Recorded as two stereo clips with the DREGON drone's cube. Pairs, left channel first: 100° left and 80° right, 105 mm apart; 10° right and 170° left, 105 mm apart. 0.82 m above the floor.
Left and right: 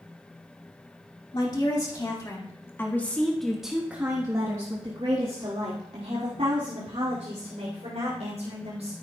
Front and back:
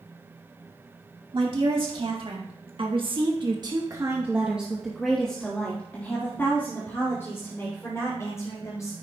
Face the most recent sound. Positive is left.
turn(degrees=-70)